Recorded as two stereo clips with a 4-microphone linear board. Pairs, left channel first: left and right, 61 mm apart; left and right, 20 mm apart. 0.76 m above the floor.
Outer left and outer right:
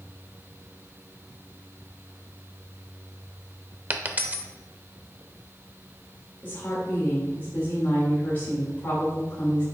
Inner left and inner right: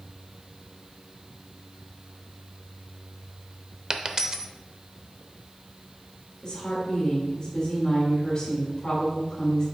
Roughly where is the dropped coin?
Right.